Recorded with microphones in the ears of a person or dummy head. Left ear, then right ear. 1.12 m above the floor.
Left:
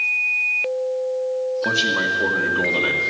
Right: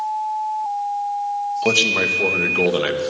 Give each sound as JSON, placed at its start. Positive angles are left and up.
{"t": 1.6, "sound": "a man speaking", "side_deg": -60, "distance_m": 1.3}